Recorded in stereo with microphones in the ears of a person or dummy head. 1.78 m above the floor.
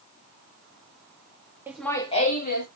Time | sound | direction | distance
1.7 | laughter | 15° right (ahead or behind) | 0.7 m